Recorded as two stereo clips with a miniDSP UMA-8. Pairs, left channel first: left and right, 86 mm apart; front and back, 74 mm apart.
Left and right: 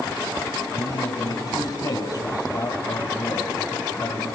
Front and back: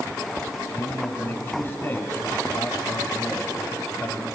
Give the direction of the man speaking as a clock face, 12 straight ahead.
10 o'clock.